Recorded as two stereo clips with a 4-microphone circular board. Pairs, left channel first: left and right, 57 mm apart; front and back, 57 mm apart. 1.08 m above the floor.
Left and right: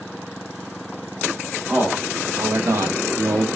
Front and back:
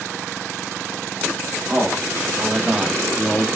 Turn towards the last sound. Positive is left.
turn(degrees=-60)